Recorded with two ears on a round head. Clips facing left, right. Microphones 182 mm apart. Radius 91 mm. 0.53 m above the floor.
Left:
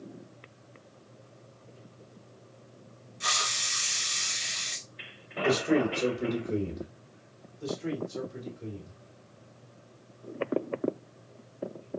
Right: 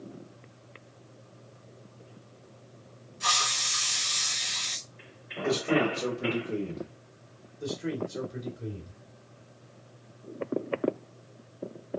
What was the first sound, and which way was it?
A hiss, 15° left (ahead or behind).